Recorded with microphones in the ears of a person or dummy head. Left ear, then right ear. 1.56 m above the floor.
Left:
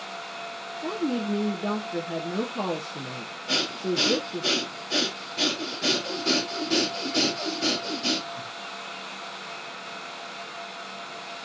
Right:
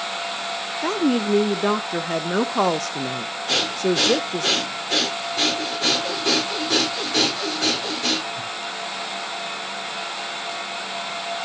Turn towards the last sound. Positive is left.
turn(degrees=-45)  # may be behind; listen again after turning